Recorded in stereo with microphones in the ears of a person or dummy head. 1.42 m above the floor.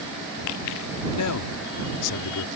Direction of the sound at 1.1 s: 80° left.